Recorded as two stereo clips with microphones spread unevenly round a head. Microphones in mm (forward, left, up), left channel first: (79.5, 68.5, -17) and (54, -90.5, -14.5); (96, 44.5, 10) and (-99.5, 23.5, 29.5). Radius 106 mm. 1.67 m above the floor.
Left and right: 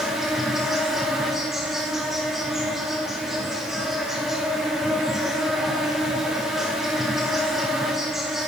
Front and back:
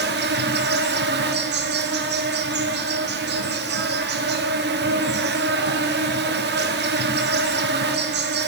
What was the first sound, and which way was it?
An insect, 170° left.